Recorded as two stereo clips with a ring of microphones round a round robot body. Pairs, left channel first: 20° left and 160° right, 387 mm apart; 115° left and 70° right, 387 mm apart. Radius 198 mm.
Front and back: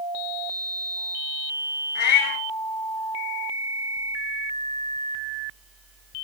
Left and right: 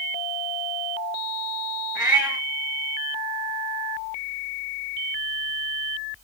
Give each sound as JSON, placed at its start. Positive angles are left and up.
{"t": 1.9, "sound": "a cat meowing", "azimuth_deg": 20, "distance_m": 2.5}